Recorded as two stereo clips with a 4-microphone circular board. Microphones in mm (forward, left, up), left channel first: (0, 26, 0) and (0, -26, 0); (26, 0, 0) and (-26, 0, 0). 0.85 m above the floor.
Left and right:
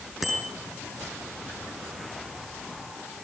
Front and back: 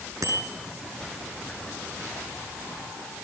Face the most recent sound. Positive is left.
turn(degrees=180)